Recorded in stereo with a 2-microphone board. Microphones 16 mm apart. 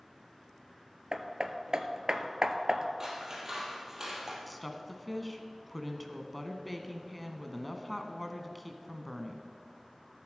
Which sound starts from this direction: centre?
A woman speaking, at 4.5 s.